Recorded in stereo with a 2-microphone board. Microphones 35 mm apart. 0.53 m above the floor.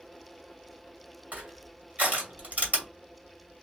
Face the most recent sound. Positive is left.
turn(degrees=-50)  # may be behind; listen again after turning